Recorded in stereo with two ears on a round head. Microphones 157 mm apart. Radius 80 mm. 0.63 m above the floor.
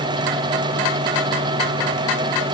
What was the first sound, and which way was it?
Only background noise.